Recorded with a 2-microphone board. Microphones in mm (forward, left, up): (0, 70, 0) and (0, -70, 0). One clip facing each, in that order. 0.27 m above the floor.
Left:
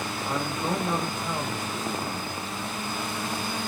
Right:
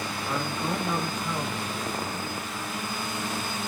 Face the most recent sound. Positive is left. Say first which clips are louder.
# left 1 dB
turn(degrees=20)  # may be behind; listen again after turning